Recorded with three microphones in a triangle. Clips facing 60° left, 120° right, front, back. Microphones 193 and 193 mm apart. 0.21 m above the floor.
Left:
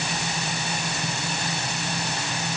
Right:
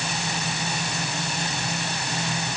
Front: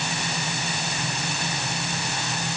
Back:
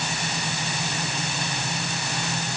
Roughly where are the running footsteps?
No running footsteps in this recording.